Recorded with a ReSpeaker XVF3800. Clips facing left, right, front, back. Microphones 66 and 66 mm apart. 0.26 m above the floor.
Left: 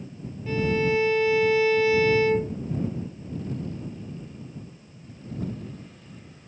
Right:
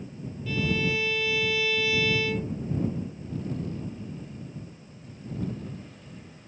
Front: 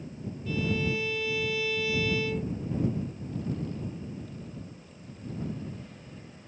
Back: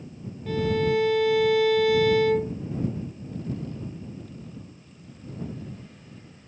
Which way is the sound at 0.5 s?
145° left.